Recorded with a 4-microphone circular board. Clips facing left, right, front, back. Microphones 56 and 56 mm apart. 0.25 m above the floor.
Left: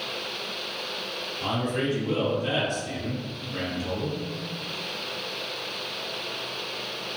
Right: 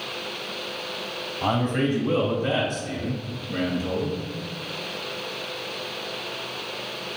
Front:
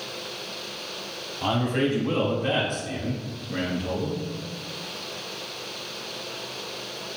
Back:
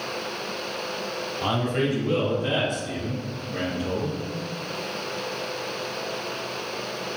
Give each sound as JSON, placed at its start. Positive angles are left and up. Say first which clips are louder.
{"t": 1.4, "sound": "a man speaking", "louder": "right 4 dB, front 1 dB", "azimuth_deg": -75, "distance_m": 1.1}